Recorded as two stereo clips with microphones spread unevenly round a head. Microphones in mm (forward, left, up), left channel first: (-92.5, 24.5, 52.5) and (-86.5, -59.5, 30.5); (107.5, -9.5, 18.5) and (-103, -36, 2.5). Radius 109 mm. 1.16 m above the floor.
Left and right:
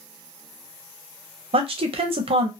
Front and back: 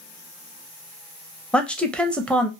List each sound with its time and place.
1.5 s a woman speaking: 80° right, 0.7 m